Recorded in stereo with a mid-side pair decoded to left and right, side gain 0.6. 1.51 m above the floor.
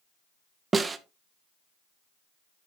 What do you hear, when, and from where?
0.7 s a snare drum: 25° right, 0.8 m